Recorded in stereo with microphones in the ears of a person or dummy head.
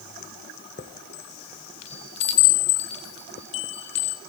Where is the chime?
25° left (ahead or behind), 1.0 m.